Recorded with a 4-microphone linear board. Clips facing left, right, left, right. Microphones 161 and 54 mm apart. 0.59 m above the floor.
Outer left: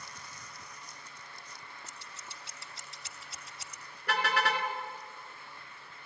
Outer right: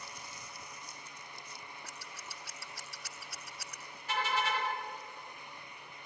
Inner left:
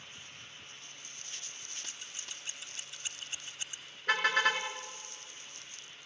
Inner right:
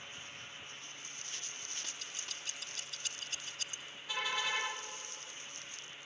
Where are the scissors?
25° left (ahead or behind), 2.5 m.